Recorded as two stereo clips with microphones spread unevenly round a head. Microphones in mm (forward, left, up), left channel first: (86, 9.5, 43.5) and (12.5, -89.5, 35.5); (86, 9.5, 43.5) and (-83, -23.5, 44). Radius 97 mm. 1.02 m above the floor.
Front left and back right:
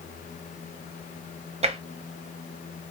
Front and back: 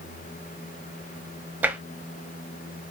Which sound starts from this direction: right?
Tapping, at 1.6 s.